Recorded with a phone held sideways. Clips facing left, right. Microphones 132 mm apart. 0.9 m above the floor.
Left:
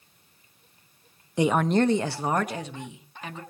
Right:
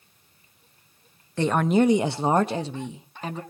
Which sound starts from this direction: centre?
A woman speaking, at 1.4 s.